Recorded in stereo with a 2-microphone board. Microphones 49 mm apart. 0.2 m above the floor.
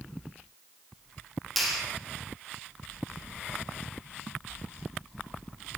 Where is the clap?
Centre (ahead or behind), 6.5 m.